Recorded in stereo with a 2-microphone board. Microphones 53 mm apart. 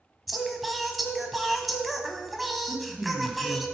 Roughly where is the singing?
Centre.